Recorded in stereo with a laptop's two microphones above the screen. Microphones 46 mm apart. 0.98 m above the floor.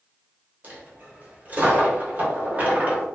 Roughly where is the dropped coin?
Right.